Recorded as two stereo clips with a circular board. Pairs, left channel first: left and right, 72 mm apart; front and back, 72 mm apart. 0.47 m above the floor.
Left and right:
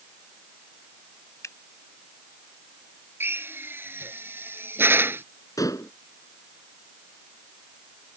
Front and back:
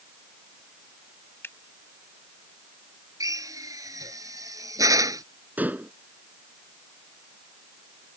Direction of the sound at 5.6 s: 115° left.